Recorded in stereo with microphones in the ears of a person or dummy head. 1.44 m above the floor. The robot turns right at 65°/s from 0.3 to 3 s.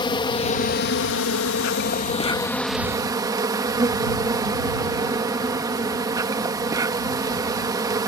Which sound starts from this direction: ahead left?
An insect, at 0.0 s.